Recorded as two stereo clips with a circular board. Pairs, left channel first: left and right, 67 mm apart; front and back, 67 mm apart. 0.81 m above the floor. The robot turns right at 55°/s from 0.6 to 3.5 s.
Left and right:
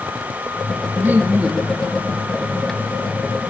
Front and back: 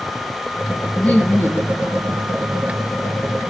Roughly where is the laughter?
Ahead right.